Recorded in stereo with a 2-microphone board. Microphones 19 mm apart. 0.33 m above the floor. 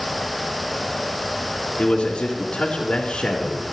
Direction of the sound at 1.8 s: 65° left (ahead or behind).